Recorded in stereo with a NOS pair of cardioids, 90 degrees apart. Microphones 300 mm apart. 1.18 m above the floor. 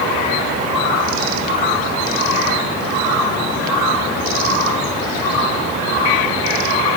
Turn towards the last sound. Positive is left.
No sound to turn to.